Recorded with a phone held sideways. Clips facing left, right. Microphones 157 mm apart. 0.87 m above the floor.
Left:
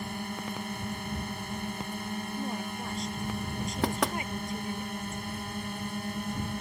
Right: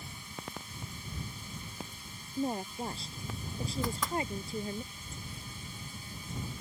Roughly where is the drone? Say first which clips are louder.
Left 10 dB; left.